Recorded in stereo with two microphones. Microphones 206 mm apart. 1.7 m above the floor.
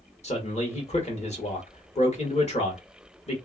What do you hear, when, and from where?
0.2 s a man speaking: 30° left (ahead or behind), 1.5 m